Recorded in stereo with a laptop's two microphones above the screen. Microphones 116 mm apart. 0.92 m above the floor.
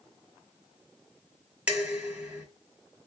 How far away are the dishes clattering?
About 1.6 m.